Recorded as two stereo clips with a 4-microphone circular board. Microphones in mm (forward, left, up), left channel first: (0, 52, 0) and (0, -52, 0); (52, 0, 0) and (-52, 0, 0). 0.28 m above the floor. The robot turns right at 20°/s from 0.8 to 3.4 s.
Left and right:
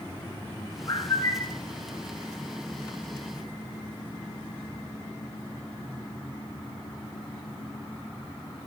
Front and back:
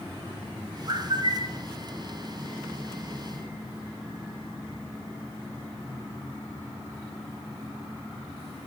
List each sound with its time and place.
0.9 s a bird: 140° left, 1.7 m; by 1.6 s 155° left, 1.7 m